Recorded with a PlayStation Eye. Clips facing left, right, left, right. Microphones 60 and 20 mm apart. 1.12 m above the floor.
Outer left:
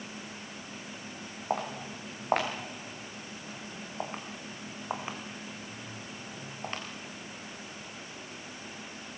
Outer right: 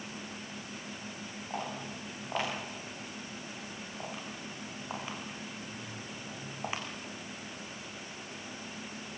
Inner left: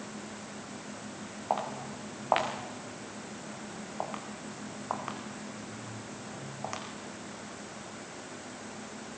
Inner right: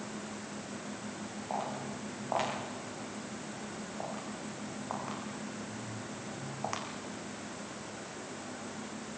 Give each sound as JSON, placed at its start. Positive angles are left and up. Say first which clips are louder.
{"t": 1.5, "sound": "footsteps", "louder": "outer left 6 dB, inner left 4 dB", "side_deg": 60, "distance_m": 5.5}